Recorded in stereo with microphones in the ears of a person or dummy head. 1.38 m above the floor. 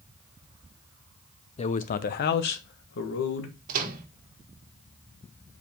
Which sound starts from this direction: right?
A microwave, at 3.7 s.